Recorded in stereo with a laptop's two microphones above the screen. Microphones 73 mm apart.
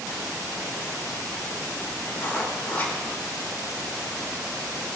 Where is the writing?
25° left (ahead or behind), 3.5 m.